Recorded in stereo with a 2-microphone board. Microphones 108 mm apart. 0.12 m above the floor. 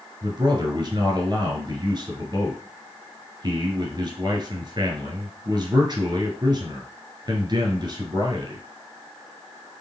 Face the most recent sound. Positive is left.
turn(degrees=-40)  # may be behind; listen again after turning